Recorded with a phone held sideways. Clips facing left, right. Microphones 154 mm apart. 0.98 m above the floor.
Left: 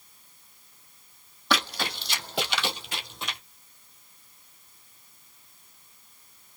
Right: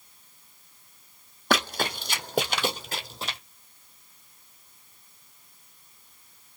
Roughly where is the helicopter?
No helicopter in this recording.